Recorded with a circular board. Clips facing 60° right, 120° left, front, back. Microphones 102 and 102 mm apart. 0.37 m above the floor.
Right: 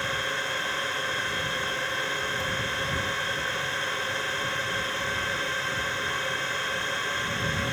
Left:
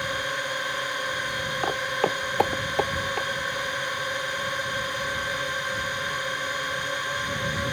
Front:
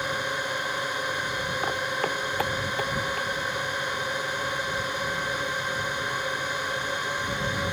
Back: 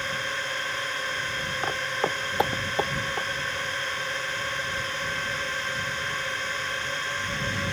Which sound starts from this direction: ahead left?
A drone, at 0.0 s.